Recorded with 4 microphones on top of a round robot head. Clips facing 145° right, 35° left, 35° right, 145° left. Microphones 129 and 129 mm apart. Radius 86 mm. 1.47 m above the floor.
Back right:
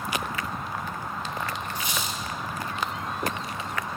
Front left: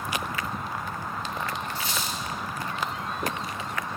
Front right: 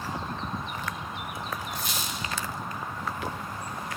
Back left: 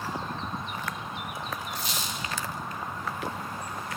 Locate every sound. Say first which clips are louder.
1.8 s a squeak: even, front right 1 dB; 70° right, 1.5 m